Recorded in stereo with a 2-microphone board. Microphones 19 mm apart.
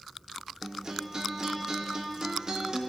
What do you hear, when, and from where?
0.6 s a guitar: 35° right (ahead or behind), 0.8 m